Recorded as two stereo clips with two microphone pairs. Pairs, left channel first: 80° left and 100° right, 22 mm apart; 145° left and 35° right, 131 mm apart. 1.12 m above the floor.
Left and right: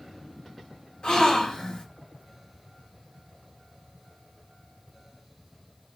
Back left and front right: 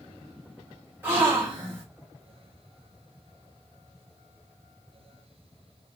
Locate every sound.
1.0 s a gasp: 35° left, 1.5 m